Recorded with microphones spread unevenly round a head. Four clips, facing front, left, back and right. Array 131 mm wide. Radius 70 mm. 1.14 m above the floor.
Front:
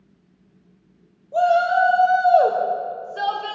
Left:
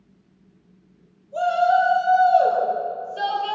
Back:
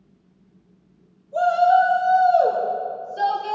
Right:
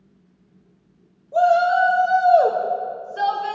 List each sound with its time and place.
1.3 s a shout: 45° right, 5.5 m; by 3.5 s 25° right, 6 m